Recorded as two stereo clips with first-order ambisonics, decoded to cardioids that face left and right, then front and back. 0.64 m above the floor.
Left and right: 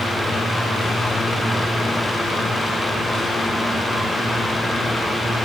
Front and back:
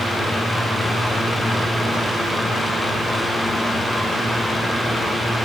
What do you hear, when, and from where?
Only background noise.